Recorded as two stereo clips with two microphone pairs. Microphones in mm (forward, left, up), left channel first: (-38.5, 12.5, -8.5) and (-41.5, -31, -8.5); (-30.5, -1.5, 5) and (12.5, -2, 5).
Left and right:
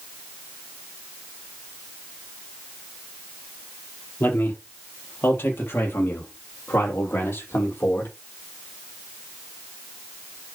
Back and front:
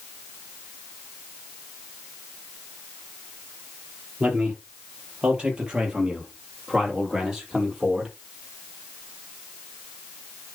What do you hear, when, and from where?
4.2 s a man speaking: 60° left, 4.5 m; by 8.2 s 80° left, 6 m